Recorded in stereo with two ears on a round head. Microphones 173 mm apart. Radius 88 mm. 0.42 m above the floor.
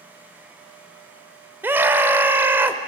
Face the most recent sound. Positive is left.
turn(degrees=-10)  # may be behind; listen again after turning